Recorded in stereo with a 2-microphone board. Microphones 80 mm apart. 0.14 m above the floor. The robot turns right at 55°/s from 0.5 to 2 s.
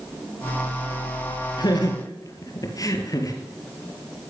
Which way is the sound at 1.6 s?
60° left (ahead or behind).